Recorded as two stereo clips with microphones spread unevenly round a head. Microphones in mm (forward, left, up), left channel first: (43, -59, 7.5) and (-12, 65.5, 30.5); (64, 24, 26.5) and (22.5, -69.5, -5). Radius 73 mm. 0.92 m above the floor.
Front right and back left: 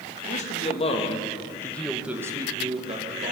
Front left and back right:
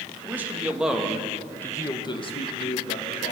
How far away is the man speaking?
About 1.9 m.